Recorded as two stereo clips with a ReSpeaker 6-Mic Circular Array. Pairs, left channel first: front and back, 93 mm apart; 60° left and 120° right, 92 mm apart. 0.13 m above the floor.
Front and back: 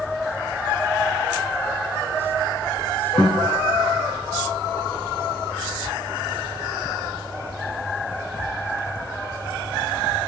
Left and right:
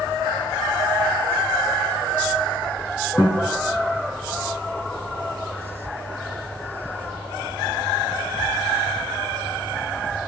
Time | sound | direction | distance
3.2 | a guitar | 5° left | 3 m